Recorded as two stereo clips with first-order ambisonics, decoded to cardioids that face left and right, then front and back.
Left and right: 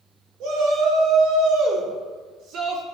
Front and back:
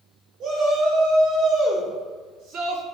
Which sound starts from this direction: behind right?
A shout, at 0.4 s.